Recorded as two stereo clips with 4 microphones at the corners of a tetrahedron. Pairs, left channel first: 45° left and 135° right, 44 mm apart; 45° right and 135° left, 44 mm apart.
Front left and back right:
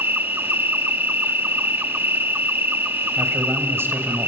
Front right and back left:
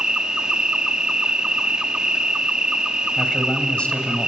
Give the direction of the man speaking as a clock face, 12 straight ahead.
4 o'clock.